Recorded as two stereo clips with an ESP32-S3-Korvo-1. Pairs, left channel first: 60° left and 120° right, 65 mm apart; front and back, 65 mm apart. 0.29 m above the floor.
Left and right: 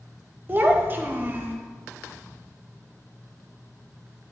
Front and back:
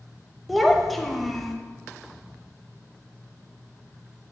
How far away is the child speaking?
About 0.7 m.